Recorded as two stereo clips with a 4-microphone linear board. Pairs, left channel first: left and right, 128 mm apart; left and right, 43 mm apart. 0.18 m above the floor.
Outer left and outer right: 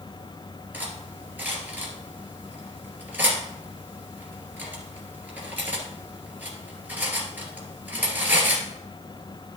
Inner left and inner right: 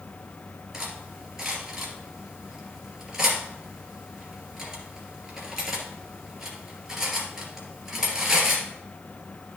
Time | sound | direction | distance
0.7 | cutlery clinking | 15° right (ahead or behind) | 2.5 m